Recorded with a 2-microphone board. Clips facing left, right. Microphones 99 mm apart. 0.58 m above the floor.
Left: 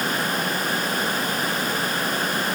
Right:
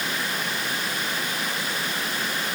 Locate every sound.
Only background noise.